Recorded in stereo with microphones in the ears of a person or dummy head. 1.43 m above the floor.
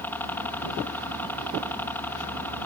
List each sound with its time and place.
0.0 s a helicopter: 15° left (ahead or behind)